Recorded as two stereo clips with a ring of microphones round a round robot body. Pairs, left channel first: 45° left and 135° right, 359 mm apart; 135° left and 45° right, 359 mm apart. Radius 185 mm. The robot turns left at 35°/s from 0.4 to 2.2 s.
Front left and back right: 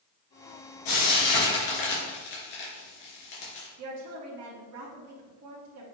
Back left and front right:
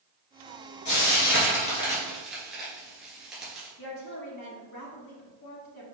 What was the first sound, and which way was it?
Frying, 90° left.